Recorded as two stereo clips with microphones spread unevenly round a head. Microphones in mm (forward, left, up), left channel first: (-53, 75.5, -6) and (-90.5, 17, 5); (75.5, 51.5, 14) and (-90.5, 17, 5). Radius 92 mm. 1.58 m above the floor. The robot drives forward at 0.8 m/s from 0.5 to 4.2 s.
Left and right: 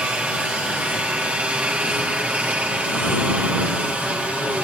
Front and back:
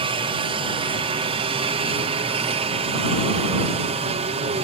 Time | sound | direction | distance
0.0 | a helicopter | 175° left | ?